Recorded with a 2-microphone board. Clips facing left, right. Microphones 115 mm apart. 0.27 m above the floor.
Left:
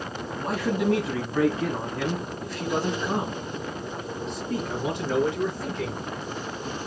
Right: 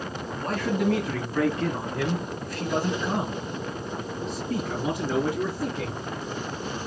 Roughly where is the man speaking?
Centre.